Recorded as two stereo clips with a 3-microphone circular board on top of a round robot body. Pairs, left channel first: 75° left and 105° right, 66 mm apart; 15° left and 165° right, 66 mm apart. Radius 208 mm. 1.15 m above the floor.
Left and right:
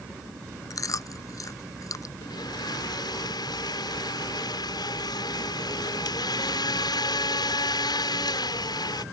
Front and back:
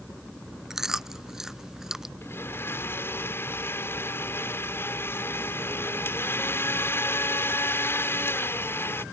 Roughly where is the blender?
Left.